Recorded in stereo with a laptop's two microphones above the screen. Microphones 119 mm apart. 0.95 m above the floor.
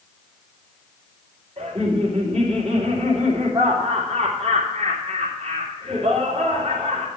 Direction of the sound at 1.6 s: 60° right (ahead or behind).